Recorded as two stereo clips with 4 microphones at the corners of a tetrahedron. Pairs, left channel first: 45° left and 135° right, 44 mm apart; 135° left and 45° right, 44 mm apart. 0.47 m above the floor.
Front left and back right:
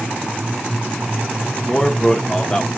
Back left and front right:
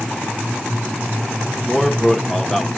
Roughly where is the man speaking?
Ahead left.